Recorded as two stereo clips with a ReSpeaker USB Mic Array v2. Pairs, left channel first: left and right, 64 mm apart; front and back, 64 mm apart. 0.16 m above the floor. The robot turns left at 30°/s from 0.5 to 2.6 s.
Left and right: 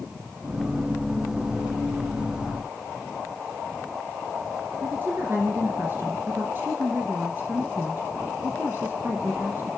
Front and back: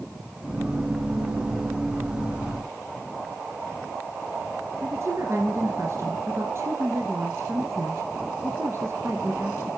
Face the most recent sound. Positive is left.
turn(degrees=-140)